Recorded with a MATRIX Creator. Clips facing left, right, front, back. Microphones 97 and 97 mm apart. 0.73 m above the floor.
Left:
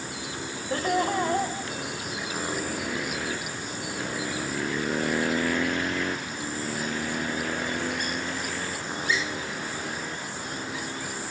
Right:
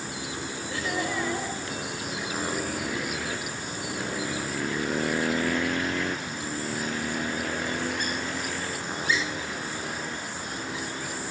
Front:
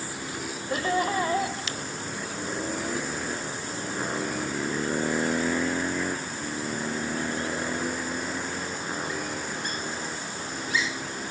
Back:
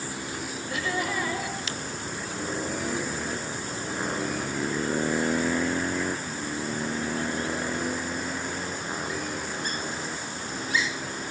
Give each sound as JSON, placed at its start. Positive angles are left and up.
{"t": 0.7, "sound": "laughter", "azimuth_deg": 50, "distance_m": 3.5}